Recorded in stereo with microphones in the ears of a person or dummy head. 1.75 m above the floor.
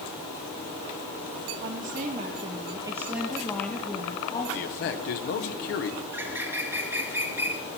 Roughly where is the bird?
Centre.